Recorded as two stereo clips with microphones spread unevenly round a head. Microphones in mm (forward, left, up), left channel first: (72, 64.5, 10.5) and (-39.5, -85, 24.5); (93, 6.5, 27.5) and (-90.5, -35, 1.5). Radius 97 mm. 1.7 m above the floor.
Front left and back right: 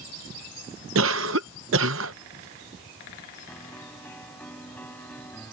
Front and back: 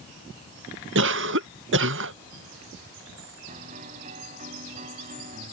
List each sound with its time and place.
0.9 s a cough: 140° right
3.5 s a piano: 135° left